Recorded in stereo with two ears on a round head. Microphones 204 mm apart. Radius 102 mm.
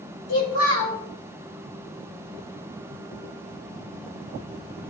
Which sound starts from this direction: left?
A child speaking, at 0.3 s.